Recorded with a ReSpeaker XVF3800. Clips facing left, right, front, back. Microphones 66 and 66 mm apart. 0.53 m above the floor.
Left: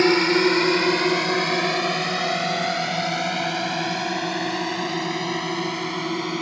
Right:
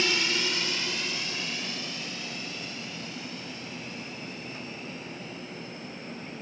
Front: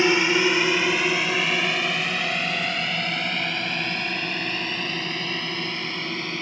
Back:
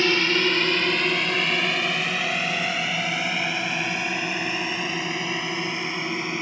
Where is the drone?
70° left; by 6.4 s 105° left.